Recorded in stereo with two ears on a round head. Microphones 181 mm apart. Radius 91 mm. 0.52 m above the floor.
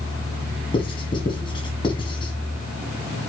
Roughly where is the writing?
Left.